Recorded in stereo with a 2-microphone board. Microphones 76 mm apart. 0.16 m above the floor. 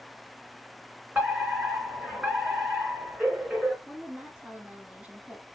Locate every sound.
1.1 s a fire alarm: 20° right (ahead or behind), 2.5 m
3.9 s a woman speaking: 15° right (ahead or behind), 1.1 m